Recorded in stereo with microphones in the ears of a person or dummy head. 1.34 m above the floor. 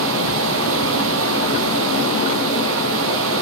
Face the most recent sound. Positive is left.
turn(degrees=-70)  # may be behind; listen again after turning